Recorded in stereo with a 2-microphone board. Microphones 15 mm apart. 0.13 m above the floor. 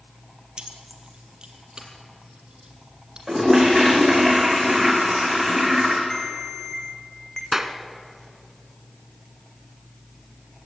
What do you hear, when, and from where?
0.6 s keys jangling: 60° right (ahead or behind), 2.5 m; by 3.2 s 50° right (ahead or behind), 4 m
3.3 s a toilet flushing: 30° right (ahead or behind), 4 m
6.1 s a ringtone: 25° left (ahead or behind), 3.5 m
7.5 s a clap: 25° right (ahead or behind), 1.3 m